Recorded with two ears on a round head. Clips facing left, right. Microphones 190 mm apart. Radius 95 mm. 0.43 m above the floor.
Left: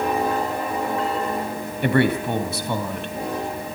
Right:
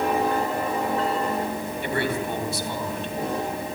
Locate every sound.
1.8 s a man speaking: 50° left (ahead or behind), 3 m